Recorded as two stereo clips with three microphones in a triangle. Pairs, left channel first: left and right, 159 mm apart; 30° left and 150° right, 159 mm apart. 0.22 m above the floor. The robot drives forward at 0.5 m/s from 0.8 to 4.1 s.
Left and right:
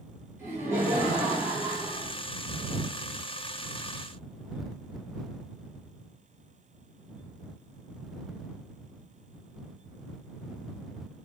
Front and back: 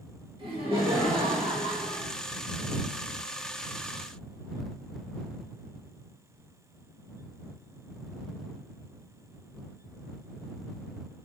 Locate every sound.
0.4 s laughter: 150° right, 1.7 m; by 2.1 s 165° right, 2 m